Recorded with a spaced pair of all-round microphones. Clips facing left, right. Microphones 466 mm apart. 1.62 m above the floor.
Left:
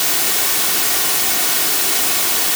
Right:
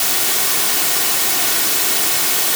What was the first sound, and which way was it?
Only background noise.